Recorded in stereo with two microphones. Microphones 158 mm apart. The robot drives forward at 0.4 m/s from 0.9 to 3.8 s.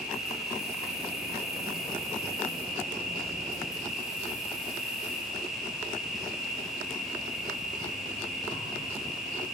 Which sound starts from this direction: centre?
An insect, at 0.0 s.